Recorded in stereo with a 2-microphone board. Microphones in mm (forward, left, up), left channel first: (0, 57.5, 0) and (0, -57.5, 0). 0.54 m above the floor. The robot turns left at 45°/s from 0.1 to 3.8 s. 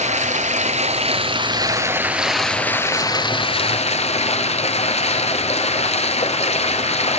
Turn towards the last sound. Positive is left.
turn(degrees=115)